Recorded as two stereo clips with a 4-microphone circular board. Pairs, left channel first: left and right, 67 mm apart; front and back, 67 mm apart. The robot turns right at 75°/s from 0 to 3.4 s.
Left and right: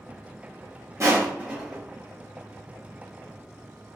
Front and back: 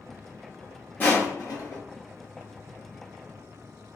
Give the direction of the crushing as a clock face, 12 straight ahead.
2 o'clock.